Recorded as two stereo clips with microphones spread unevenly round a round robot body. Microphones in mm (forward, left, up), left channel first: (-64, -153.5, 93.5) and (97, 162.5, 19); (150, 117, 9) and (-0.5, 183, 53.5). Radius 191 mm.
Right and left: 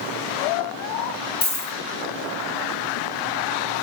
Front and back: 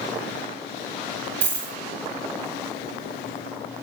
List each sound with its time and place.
1.4 s a dropped coin: 175° left, 2.5 m